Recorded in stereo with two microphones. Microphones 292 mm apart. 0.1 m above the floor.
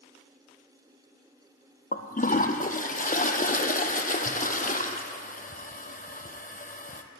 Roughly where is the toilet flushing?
Left.